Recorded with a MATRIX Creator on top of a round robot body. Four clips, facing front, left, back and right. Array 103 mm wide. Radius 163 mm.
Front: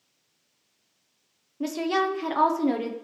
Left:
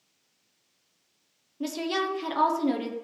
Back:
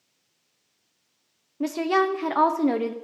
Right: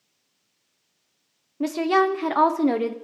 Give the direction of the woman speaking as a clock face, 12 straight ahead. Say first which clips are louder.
Right 9 dB, back 3 dB; 4 o'clock.